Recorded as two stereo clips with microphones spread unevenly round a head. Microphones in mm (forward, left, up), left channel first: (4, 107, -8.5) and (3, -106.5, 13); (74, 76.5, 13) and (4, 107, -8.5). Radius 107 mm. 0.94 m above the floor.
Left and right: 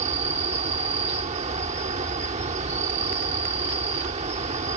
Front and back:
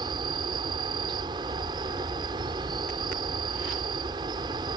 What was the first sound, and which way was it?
An insect, 150° right.